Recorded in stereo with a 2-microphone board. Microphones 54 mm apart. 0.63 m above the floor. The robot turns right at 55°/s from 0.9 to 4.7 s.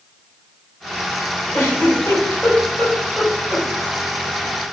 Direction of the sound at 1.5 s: 55° left (ahead or behind).